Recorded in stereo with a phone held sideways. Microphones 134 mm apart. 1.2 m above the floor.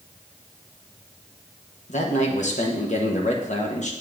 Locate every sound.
1.9 s a man speaking: 60° left (ahead or behind), 1.0 m